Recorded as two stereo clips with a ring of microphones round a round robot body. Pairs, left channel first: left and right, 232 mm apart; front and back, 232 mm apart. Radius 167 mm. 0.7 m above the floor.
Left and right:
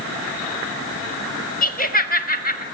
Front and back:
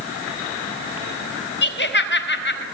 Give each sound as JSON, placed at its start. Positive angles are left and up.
{"t": 1.6, "sound": "laughter", "azimuth_deg": 40, "distance_m": 4.5}